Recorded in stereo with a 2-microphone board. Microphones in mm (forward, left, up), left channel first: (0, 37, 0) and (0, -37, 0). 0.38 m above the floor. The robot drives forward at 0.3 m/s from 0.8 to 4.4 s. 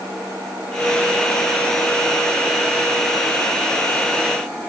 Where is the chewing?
No chewing in this recording.